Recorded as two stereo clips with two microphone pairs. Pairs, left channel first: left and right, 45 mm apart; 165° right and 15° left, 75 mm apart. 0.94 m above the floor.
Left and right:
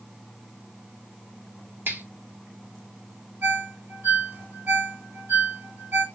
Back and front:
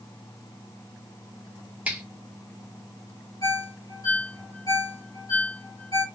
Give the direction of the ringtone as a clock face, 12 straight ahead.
4 o'clock.